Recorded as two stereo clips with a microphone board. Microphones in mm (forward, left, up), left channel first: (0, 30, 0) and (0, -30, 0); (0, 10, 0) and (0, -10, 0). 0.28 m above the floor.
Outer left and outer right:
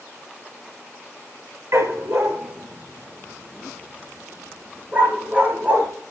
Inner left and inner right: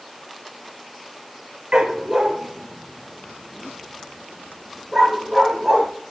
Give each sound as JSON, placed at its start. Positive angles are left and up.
{"t": 1.7, "sound": "a dog barking", "side_deg": -60, "distance_m": 2.5}